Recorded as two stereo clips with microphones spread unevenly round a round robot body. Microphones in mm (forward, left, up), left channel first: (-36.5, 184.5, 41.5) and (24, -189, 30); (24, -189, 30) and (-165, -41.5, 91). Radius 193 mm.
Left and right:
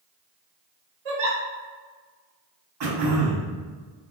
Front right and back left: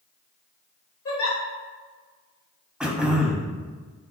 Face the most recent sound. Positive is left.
turn(degrees=-130)